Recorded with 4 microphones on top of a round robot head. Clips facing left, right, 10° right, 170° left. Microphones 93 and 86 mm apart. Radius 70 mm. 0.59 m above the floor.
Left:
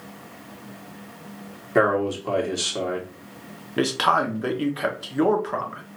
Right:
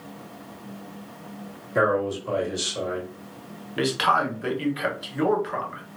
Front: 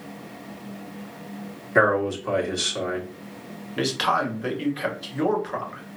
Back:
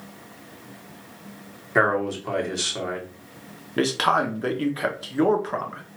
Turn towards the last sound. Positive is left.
turn(degrees=135)